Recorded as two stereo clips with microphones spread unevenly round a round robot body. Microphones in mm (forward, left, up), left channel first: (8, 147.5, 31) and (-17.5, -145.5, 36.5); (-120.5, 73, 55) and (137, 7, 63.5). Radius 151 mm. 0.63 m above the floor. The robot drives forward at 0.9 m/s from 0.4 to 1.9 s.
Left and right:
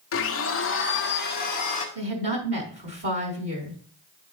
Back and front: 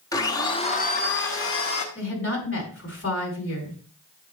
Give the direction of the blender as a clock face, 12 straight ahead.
9 o'clock.